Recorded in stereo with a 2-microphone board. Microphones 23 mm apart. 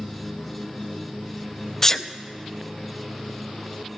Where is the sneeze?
20° left (ahead or behind), 0.6 m.